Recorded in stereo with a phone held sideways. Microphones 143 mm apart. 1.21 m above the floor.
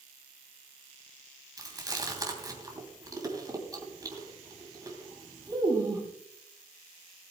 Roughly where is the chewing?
Right.